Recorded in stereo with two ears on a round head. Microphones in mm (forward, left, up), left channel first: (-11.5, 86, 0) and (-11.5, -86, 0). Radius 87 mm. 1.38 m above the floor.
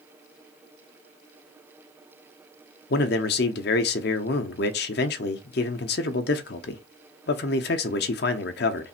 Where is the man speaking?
55° left (ahead or behind), 0.6 m.